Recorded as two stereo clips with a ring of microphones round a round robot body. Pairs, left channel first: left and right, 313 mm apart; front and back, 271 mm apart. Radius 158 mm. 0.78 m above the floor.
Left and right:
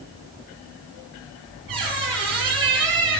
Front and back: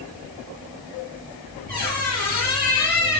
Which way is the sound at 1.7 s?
115° right.